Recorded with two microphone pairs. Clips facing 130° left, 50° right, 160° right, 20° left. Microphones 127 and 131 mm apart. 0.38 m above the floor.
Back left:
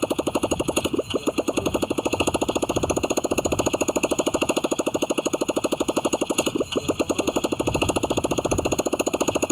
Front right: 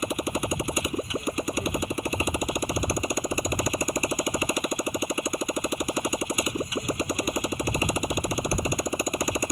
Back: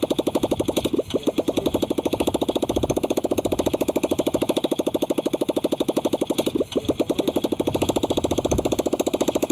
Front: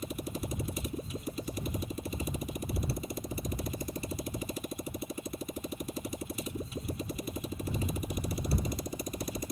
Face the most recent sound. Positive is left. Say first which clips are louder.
# back left 6 dB, back 17 dB
turn(degrees=-165)